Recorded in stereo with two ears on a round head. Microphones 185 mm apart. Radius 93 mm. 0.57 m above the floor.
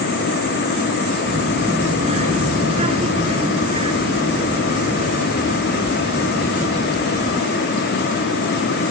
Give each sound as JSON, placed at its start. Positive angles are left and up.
{"t": 1.3, "sound": "a child speaking", "side_deg": -35}